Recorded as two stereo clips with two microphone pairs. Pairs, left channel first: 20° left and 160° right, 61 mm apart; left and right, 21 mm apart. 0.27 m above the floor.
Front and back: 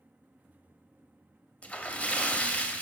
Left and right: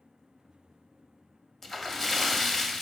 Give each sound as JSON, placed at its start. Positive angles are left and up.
{"t": 1.6, "sound": "a splash", "azimuth_deg": 40, "distance_m": 0.6}